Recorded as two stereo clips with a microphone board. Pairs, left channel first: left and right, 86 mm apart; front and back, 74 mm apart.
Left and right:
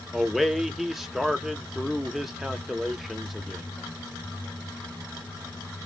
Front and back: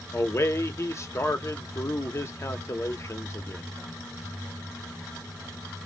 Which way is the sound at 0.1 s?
5° right.